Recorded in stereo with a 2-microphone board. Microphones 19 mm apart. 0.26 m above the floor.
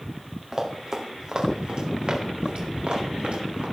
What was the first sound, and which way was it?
Running footsteps, 20° right (ahead or behind).